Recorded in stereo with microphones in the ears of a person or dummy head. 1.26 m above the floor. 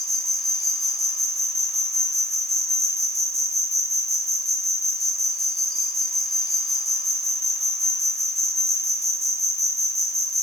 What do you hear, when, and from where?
0.0 s an insect: centre (ahead or behind), 1.2 m